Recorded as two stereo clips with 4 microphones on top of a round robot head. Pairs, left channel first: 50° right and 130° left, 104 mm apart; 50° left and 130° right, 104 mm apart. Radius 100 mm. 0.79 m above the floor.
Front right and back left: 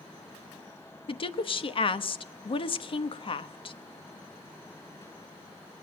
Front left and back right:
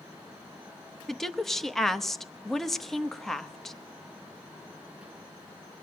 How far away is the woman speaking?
About 0.9 m.